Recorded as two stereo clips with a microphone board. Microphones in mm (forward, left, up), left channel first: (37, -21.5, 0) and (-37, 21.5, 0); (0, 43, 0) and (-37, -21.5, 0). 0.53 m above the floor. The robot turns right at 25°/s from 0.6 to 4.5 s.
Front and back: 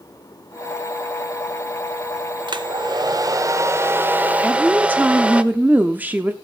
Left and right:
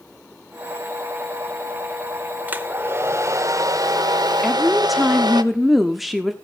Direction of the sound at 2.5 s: 175° left.